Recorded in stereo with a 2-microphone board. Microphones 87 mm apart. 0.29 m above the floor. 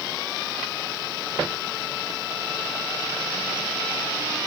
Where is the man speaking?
I don't hear a man speaking.